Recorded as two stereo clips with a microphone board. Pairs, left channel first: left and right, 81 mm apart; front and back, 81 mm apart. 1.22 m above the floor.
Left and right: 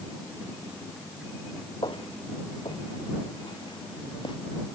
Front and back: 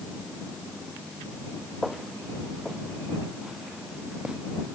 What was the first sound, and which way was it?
Footsteps, 95° left.